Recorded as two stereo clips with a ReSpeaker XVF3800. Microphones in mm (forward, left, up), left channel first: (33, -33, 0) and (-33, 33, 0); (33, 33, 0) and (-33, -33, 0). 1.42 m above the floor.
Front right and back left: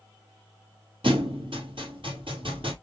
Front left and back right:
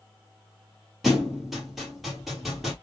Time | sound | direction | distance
1.0 | a thud | 135° left | 3 m